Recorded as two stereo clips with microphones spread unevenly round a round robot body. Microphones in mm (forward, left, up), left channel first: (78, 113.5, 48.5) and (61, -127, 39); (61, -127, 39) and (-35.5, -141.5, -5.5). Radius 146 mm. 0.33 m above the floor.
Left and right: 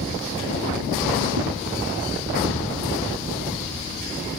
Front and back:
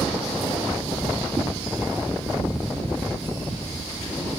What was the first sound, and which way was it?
A whoosh, 105° right.